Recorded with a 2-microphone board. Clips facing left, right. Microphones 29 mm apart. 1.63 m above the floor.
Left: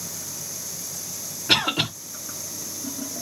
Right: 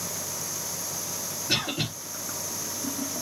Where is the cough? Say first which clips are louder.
Left 7 dB; 75° left (ahead or behind), 1.3 m.